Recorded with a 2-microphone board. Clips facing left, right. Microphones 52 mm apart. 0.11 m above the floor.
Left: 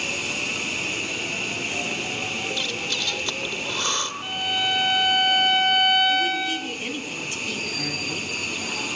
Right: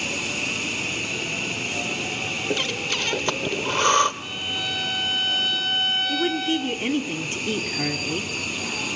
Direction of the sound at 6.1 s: 40° right (ahead or behind).